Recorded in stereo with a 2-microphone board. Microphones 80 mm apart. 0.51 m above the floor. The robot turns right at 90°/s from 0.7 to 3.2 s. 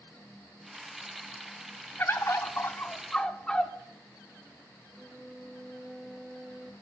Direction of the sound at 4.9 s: 5° right (ahead or behind).